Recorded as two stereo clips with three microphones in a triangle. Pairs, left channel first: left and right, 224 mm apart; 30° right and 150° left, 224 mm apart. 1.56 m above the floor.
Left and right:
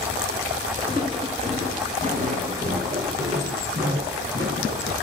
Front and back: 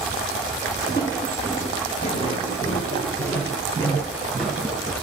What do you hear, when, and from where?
0.8 s footsteps: 35° right, 1.9 m; by 4.9 s 120° right, 2.5 m